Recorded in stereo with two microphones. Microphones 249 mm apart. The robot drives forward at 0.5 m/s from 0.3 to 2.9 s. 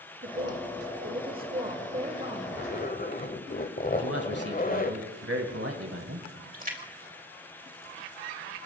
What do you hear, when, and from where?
0.2 s a woman speaking: 35° right (ahead or behind), 1.0 m; by 2.6 s 25° right (ahead or behind), 1.4 m
2.5 s a zipper: 40° left (ahead or behind), 1.0 m; by 5.0 s 35° left (ahead or behind), 1.2 m
4.0 s a man speaking: 65° right (ahead or behind), 2 m
6.5 s a splash: 35° right (ahead or behind), 1.9 m